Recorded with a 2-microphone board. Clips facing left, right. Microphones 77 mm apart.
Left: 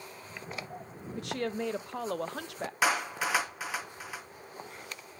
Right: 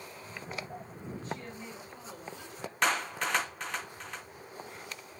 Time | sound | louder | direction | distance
1.2 | a woman speaking | left 9 dB | 80° left | 0.6 m
2.8 | a clap | left 1 dB | 5° left (ahead or behind) | 0.6 m